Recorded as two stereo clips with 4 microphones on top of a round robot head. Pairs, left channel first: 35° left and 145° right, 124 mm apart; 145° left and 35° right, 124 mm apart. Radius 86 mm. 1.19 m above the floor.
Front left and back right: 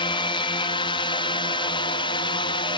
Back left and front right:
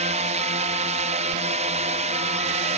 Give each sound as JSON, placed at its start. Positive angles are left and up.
{"t": 0.0, "sound": "a drone", "azimuth_deg": -10}